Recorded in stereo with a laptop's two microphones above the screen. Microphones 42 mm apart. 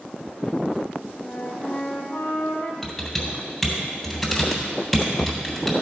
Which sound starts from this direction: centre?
Typing on a keyboard, at 2.8 s.